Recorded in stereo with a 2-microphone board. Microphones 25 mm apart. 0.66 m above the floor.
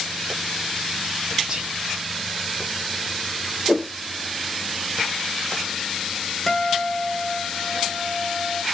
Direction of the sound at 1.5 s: 30° right (ahead or behind).